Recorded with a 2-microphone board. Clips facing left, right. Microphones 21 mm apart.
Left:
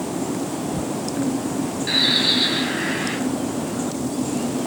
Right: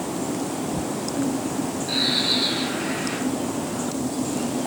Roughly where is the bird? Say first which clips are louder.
Left 4 dB; left.